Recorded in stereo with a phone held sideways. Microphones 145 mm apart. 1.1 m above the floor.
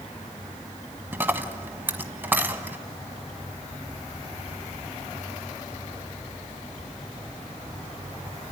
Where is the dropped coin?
15° right (ahead or behind), 1.3 m.